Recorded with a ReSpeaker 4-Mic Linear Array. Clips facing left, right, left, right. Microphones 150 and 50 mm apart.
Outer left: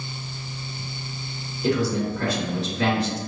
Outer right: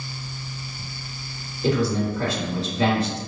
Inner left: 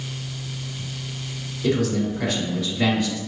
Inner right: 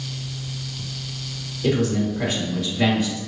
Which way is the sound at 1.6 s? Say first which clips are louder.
Outer right 1 dB, inner right 1 dB; 30° right (ahead or behind).